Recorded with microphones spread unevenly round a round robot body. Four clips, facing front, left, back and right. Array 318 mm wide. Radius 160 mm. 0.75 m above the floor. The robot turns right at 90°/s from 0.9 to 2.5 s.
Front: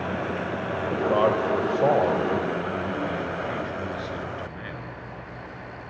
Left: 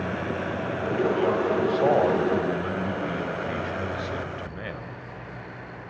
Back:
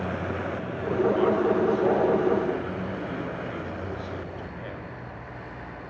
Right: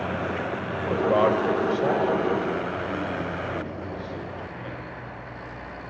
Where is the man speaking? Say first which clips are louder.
Right 3 dB, even; 70° right, 4 m; by 4.8 s 70° left, 4 m.